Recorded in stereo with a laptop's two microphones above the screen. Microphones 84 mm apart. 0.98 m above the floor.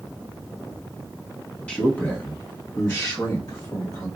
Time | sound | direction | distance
1.7 | a man speaking | 15° left (ahead or behind) | 0.8 m